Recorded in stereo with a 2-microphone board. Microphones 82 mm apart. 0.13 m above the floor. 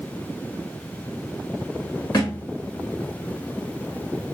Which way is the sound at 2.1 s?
65° left (ahead or behind).